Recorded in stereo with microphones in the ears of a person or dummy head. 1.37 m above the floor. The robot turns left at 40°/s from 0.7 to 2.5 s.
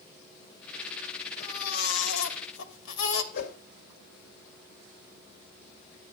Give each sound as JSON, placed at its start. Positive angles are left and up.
{"t": 1.4, "sound": "a baby crying", "azimuth_deg": 135, "distance_m": 2.0}
{"t": 3.3, "sound": "a whoosh", "side_deg": 60, "distance_m": 2.5}